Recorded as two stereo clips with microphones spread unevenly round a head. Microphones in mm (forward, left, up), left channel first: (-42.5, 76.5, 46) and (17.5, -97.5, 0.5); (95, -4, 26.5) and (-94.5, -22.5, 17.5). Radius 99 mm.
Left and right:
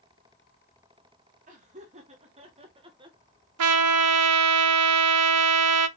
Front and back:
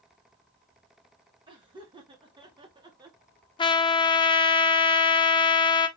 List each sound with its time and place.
1.5 s laughter: 110° right, 1.9 m; by 3.2 s 115° right, 1.0 m
3.6 s a trumpet: 55° right, 0.5 m